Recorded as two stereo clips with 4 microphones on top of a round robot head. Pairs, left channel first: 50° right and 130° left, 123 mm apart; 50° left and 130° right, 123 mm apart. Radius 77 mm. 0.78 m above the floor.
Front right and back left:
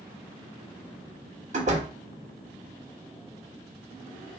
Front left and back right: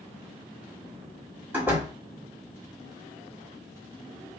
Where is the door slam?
155° left, 1.2 m.